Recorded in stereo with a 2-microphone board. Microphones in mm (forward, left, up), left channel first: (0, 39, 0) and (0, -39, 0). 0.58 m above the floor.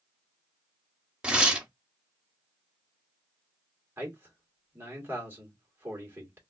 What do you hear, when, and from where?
1.2 s tearing paper: 10° right (ahead or behind), 0.6 m
4.0 s a man speaking: 25° right (ahead or behind), 1.4 m